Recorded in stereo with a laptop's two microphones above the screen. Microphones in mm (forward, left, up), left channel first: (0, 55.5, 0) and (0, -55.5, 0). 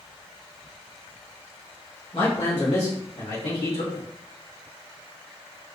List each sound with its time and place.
2.1 s a man speaking: 50° left (ahead or behind), 1.6 m; by 4.0 s 75° left (ahead or behind), 3 m